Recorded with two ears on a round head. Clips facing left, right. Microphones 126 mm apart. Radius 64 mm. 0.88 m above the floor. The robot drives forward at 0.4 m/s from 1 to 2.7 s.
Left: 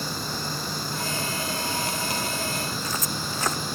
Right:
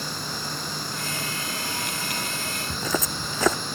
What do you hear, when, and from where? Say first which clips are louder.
0.0 s running water: left 2 dB; 5° left (ahead or behind)
2.7 s footsteps: right 3 dB; 70° right (ahead or behind)